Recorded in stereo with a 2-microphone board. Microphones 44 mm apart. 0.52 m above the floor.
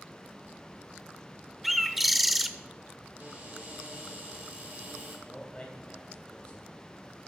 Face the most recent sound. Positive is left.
turn(degrees=25)  # may be behind; listen again after turning